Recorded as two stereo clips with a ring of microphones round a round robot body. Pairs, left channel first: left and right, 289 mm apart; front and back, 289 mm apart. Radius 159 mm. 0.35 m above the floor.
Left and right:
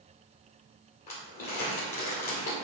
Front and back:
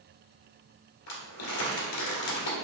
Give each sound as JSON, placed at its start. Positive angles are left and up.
{"t": 1.1, "sound": "crumpling", "azimuth_deg": 20, "distance_m": 1.4}